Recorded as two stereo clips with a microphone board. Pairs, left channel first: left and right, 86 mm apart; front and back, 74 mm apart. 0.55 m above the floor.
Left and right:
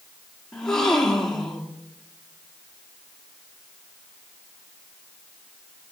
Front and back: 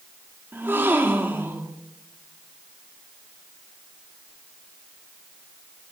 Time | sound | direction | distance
0.5 | a gasp | 170° left | 1.4 m